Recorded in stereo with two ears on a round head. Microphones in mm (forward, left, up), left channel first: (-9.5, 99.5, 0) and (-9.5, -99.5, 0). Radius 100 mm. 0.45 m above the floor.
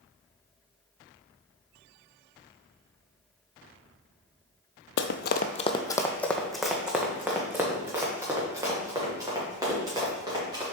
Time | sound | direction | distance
5.0 | running footsteps | 55° left (ahead or behind) | 0.7 m